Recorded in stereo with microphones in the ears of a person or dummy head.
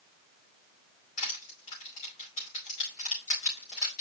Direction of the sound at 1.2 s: 30° left (ahead or behind).